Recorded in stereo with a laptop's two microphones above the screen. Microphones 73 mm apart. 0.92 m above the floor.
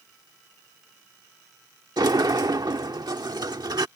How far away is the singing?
I don't hear singing.